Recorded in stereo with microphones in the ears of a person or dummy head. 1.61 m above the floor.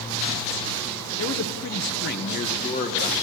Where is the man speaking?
75° left (ahead or behind), 1.4 m; by 3.1 s 35° left (ahead or behind), 2.5 m.